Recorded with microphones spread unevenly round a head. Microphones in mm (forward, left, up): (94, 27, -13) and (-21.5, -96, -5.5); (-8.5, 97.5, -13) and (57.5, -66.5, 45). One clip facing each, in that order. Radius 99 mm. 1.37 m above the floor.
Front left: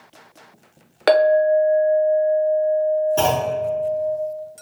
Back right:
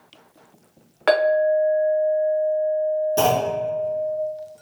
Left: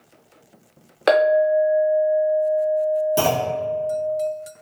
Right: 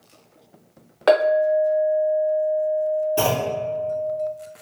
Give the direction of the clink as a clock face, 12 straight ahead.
11 o'clock.